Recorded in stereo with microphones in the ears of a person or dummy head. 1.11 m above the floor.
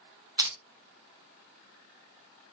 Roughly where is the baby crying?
I don't hear a baby crying.